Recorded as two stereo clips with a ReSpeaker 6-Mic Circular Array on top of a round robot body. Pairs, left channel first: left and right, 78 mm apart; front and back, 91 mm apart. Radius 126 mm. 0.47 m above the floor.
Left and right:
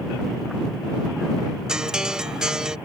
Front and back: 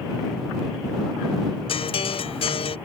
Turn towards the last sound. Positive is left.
turn(degrees=-10)